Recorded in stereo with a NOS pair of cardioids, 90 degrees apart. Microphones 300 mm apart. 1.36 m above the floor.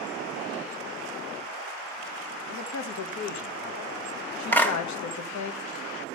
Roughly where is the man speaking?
Ahead left.